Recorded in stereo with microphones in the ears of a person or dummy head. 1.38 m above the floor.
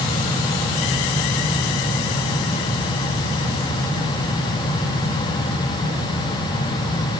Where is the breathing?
I don't hear breathing.